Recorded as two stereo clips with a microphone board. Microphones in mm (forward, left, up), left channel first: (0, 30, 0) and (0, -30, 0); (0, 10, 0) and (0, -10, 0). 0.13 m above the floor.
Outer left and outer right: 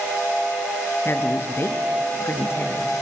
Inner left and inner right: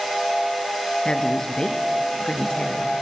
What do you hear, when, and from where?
1.1 s a woman speaking: 40° left (ahead or behind), 2.0 m